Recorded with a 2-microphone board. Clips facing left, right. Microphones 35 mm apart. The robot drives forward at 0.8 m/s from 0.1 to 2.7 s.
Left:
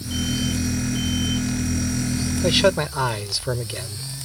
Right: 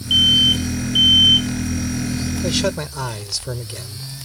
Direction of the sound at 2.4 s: 25° left (ahead or behind).